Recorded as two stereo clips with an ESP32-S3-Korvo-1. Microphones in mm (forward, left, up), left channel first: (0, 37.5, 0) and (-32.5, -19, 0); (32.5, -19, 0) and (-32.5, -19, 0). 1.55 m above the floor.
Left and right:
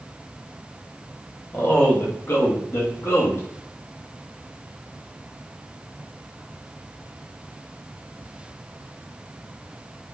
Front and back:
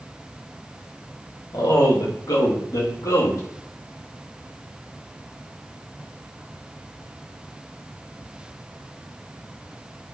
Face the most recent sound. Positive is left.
turn(degrees=15)